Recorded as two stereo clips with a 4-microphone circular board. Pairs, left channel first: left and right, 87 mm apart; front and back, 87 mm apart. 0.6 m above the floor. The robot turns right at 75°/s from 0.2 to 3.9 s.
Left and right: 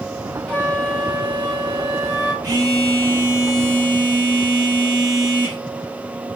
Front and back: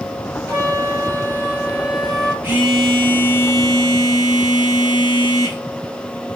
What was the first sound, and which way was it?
A flute, 145° left.